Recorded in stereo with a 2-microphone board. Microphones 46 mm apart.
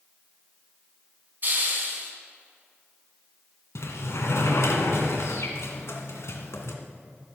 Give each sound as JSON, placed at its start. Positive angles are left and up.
{"t": 1.4, "sound": "a hiss", "side_deg": -40, "distance_m": 3.0}
{"t": 3.8, "sound": "a sliding door", "side_deg": 70, "distance_m": 1.9}